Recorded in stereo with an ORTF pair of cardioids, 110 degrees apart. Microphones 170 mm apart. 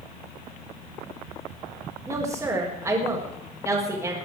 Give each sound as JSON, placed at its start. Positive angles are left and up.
{"t": 2.1, "sound": "a woman speaking", "azimuth_deg": -15, "distance_m": 5.0}